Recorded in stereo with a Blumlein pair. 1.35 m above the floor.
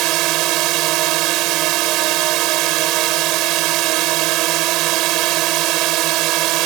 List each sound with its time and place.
0.0 s a drone: 40° right